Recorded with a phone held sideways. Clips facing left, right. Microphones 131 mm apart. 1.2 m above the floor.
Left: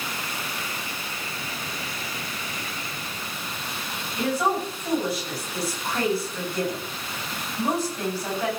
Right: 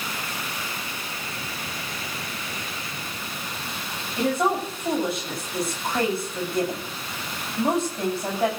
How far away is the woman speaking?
About 9 m.